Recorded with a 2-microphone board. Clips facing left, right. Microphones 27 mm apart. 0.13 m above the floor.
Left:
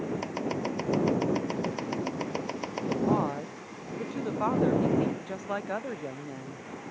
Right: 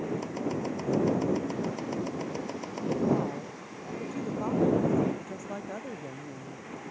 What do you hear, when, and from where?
0.2 s chopping: 25° left (ahead or behind)
3.1 s a woman speaking: 45° left (ahead or behind)